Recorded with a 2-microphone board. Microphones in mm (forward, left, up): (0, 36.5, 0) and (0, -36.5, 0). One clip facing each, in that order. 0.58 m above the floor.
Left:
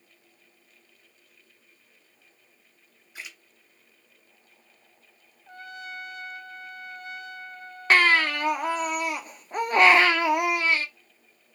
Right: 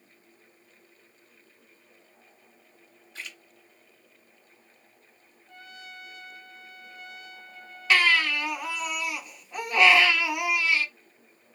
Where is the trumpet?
50° left (ahead or behind), 0.7 m.